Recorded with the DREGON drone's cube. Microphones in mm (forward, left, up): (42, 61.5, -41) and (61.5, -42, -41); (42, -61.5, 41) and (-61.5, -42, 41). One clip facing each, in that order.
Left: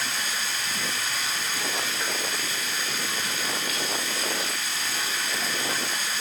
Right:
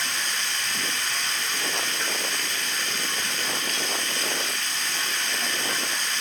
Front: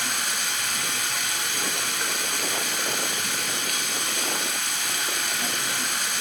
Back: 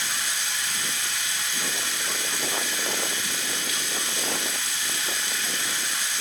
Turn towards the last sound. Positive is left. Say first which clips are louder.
# even, front 2 dB
turn(degrees=15)